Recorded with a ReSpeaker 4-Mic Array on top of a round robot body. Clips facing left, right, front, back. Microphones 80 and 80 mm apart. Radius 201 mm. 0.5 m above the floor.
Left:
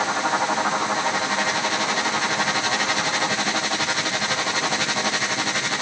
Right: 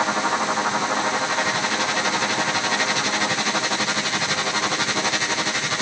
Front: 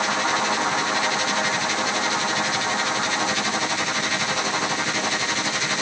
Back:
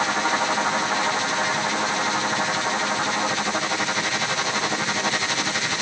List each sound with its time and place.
Only background noise.